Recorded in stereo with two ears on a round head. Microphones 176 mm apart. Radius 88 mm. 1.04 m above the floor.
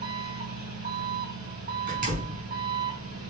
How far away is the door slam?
About 6 m.